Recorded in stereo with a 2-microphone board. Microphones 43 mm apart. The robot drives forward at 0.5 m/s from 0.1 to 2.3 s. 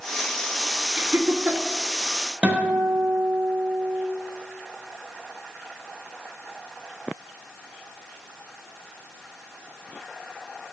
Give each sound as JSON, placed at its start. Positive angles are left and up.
{"t": 1.0, "sound": "laughter", "side_deg": -40, "distance_m": 3.0}
{"t": 2.4, "sound": "a guitar", "side_deg": -25, "distance_m": 6.0}